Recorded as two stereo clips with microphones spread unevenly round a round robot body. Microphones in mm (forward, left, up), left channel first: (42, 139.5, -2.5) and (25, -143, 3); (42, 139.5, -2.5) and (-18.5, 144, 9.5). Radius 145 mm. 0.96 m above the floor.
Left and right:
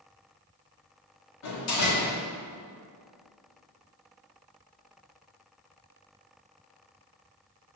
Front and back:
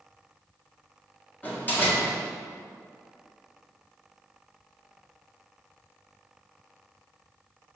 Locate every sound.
1.4 s a door slam: 55° left, 1.9 m